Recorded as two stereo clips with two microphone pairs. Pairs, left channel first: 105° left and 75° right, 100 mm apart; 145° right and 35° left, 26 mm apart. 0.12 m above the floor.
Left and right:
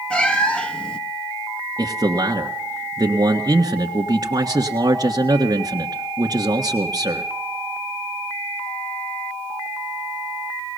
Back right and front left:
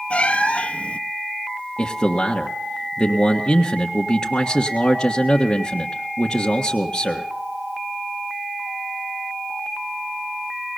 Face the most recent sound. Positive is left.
turn(degrees=-95)